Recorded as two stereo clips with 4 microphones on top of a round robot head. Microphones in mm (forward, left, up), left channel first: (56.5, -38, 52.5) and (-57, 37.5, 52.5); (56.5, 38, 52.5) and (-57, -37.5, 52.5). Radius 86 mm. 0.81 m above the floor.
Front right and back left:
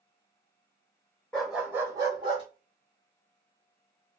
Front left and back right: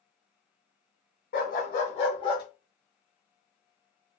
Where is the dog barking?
50° left, 0.8 m; by 2.5 s 90° left, 1.1 m.